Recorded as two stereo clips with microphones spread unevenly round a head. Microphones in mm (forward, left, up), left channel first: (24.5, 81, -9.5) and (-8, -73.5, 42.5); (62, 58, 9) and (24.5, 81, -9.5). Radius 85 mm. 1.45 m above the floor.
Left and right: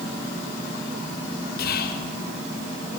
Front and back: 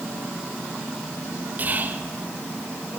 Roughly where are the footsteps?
No footsteps in this recording.